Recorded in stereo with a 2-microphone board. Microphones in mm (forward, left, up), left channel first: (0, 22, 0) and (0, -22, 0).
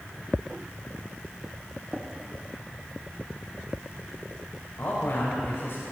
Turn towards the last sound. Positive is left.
turn(degrees=50)  # may be behind; listen again after turning